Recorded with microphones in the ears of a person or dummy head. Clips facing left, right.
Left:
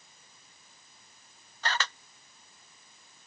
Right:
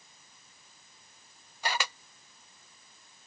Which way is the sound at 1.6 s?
10° right (ahead or behind).